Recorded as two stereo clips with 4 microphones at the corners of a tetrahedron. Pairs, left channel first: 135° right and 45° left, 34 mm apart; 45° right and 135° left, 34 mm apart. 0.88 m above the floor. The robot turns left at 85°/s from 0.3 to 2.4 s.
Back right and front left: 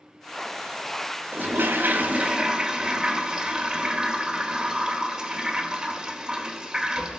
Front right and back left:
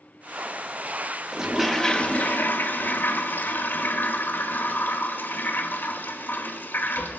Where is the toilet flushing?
70° left, 1.7 m; by 7.2 s 25° right, 1.7 m.